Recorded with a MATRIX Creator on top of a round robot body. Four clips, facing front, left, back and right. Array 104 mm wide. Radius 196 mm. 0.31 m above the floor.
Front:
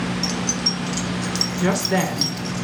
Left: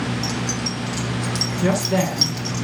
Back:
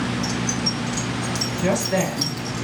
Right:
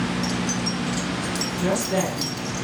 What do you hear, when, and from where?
0.2 s keys jangling: 10° left, 2.0 m; by 2.6 s 55° left, 2.5 m
1.6 s a woman speaking: 5° left, 6 m